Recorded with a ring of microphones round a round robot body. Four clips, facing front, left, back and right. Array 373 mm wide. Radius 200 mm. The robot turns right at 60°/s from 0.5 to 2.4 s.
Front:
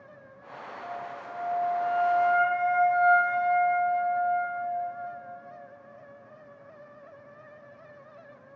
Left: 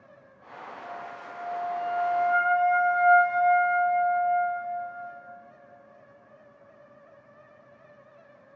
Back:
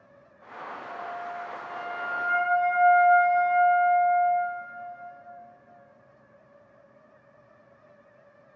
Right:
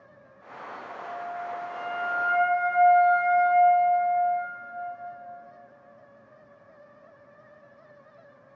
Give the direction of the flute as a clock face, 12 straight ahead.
7 o'clock.